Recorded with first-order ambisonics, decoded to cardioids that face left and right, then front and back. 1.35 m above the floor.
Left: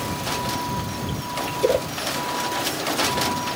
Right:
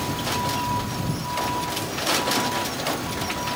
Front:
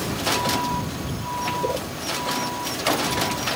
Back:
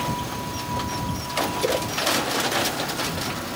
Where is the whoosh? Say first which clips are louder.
Left 8 dB, back 2 dB; 100° left.